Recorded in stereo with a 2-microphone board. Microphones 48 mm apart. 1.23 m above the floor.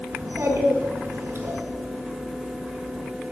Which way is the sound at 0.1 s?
60° right (ahead or behind).